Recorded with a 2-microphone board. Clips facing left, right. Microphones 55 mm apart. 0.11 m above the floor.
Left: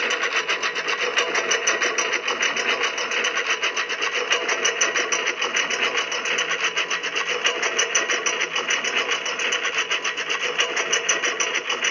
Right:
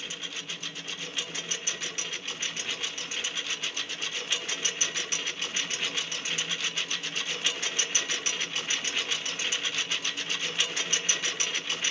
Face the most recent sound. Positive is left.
turn(degrees=40)  # may be behind; listen again after turning